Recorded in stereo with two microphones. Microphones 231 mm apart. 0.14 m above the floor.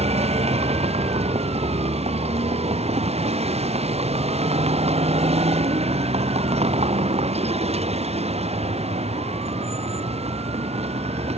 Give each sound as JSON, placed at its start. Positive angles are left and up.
{"t": 0.0, "sound": "a vehicle", "side_deg": -25}